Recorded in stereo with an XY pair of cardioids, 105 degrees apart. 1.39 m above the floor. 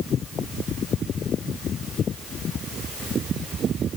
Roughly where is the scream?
No scream in this recording.